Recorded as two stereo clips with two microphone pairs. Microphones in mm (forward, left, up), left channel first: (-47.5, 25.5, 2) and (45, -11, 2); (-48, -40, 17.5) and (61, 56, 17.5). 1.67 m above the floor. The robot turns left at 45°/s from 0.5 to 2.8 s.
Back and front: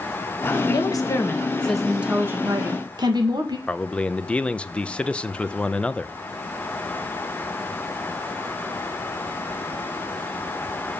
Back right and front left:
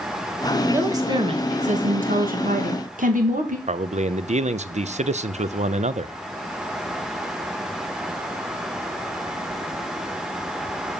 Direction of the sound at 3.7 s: 80° left.